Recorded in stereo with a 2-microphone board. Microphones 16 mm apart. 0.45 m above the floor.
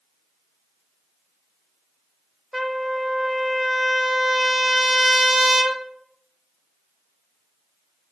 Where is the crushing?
No crushing in this recording.